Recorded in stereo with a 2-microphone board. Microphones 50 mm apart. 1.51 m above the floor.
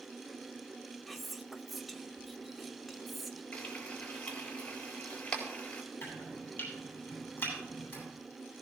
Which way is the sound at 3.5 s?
20° left (ahead or behind).